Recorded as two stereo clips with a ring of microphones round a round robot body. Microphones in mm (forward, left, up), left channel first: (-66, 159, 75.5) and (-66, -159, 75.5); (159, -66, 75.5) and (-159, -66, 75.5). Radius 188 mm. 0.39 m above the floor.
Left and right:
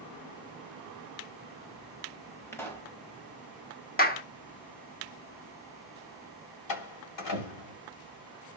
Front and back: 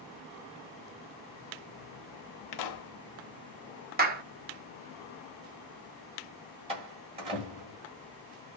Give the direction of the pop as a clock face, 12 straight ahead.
12 o'clock.